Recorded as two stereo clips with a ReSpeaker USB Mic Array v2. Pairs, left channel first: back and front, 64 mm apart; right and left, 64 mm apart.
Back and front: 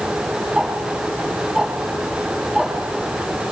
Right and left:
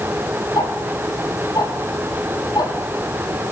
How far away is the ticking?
About 6 m.